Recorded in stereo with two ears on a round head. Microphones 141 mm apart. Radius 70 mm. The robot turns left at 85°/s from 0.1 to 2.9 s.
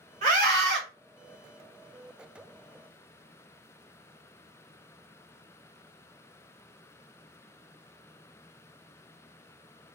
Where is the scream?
45° right, 1.5 m; by 0.8 s 95° right, 1.5 m.